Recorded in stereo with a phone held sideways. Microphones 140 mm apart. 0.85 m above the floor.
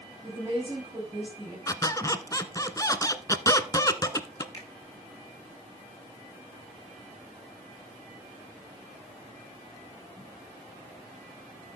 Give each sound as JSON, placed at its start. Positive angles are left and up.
{"t": 0.2, "sound": "a woman speaking", "side_deg": -20, "distance_m": 4.5}
{"t": 1.7, "sound": "a squeak", "side_deg": 25, "distance_m": 0.9}
{"t": 4.5, "sound": "a finger snap", "side_deg": 25, "distance_m": 5.0}